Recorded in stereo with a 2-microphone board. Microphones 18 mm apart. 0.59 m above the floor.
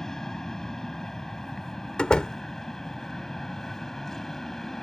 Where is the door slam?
55° left (ahead or behind).